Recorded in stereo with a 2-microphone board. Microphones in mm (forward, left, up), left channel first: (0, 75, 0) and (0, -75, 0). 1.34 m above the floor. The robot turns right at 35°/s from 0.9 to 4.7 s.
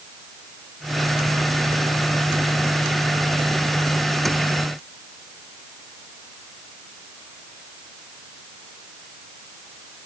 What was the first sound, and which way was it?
Only background noise.